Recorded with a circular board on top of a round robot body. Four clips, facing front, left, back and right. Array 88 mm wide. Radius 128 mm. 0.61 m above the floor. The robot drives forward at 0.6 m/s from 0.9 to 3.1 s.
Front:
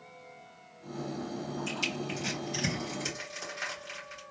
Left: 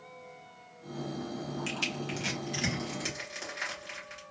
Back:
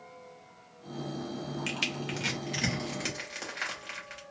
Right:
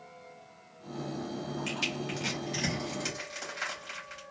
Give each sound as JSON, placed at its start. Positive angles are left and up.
{"t": 1.7, "sound": "crushing", "azimuth_deg": 170, "distance_m": 1.6}